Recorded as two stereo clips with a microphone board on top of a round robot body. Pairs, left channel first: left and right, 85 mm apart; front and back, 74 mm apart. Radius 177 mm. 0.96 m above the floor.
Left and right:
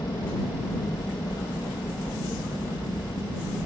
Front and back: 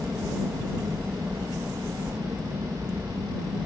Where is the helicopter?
115° left.